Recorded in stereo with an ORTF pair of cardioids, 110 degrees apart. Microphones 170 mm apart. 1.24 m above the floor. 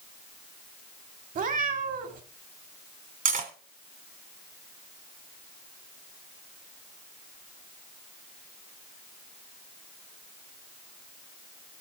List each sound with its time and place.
1.4 s a cat meowing: 55° right, 1.9 m
3.2 s cutlery clinking: 50° right, 2 m